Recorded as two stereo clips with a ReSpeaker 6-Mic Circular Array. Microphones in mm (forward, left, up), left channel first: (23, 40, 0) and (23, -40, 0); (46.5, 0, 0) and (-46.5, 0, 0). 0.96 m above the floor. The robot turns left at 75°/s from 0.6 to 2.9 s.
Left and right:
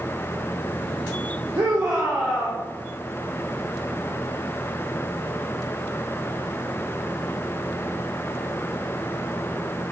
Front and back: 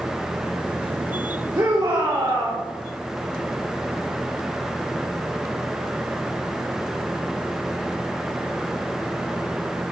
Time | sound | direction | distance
1.6 | a shout | 135° right | 2.5 m